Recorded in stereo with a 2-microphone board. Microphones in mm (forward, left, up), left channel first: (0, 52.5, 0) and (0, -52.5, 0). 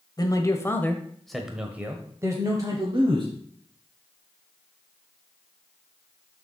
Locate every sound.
0.2 s a man speaking: 35° left (ahead or behind), 1.1 m; by 3.3 s 45° right (ahead or behind), 1.5 m